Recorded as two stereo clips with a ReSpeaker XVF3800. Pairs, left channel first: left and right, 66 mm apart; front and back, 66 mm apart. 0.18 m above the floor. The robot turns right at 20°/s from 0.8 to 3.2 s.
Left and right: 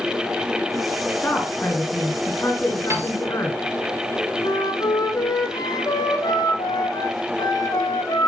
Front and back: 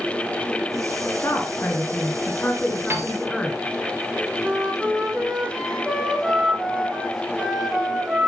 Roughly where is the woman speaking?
Ahead left.